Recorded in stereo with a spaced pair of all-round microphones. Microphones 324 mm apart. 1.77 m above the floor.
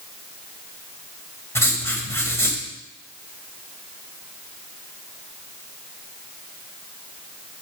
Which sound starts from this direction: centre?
Writing, at 1.6 s.